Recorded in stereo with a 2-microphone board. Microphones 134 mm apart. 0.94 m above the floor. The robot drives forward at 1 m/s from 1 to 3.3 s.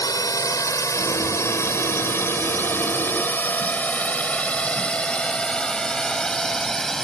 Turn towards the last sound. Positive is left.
turn(degrees=5)  # may be behind; listen again after turning